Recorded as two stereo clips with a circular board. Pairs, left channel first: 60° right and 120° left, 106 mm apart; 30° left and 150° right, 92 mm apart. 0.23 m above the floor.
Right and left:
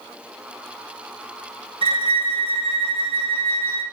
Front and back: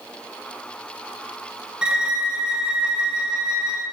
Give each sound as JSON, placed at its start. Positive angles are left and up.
{"t": 1.8, "sound": "a violin", "azimuth_deg": 130, "distance_m": 0.6}